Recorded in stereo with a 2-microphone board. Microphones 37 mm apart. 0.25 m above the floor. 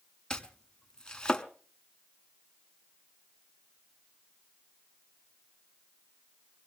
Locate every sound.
0.3 s chopping: 15° left (ahead or behind), 0.8 m